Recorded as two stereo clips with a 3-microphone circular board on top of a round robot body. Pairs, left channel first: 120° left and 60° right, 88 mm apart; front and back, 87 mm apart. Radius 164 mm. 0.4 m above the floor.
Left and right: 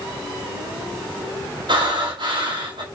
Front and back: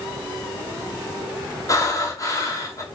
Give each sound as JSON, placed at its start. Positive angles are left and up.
{"t": 1.7, "sound": "breathing", "azimuth_deg": -45, "distance_m": 2.5}